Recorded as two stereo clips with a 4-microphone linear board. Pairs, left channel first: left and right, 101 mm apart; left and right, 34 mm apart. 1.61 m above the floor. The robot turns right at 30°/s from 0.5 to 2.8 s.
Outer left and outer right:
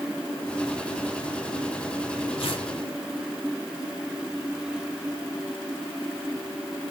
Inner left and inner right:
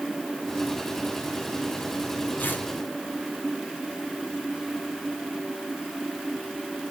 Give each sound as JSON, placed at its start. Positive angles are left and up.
{"t": 2.4, "sound": "tearing paper", "side_deg": 75, "distance_m": 3.5}